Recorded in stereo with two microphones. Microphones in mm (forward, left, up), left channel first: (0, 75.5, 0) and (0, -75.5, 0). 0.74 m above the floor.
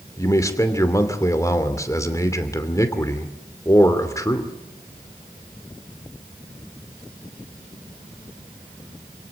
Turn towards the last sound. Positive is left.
turn(degrees=20)  # may be behind; listen again after turning